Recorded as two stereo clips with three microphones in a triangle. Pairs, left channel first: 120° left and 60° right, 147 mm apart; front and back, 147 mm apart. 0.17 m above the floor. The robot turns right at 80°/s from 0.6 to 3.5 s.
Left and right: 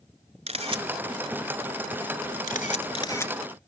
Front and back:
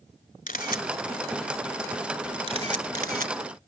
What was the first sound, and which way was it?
A camera shutter, 20° right.